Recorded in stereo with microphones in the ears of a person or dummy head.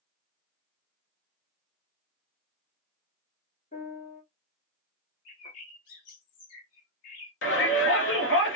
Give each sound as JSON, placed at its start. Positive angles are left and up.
{"t": 3.7, "sound": "a piano", "side_deg": 40, "distance_m": 1.4}
{"t": 5.2, "sound": "a bird", "side_deg": 50, "distance_m": 1.0}
{"t": 7.4, "sound": "a shout", "side_deg": 60, "distance_m": 1.0}